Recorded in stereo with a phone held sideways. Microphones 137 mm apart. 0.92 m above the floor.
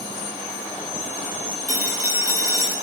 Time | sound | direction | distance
1.7 | a phone ringing | 75° right (ahead or behind) | 6.5 m